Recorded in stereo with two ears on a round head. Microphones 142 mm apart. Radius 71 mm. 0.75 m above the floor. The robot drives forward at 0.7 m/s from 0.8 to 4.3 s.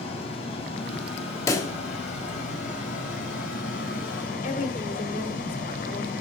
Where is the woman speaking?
50° left (ahead or behind), 2.5 m.